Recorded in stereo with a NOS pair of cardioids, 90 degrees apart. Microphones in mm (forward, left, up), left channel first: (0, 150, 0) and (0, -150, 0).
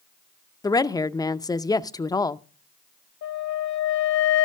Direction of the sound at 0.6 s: 10° left.